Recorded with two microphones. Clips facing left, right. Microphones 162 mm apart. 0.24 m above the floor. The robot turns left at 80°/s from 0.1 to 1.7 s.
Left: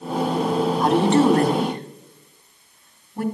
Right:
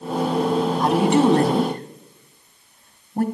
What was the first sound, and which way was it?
A woman speaking, 5° left (ahead or behind).